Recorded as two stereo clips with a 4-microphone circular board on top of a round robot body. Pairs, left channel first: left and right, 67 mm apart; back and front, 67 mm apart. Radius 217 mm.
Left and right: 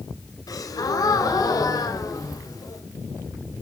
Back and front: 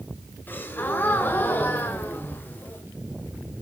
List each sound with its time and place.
0.5 s a gasp: 120° left, 1.2 m